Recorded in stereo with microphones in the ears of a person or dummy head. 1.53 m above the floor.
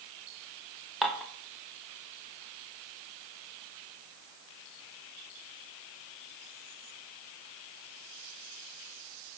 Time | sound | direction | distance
1.0 | dishes clattering | centre (ahead or behind) | 0.8 m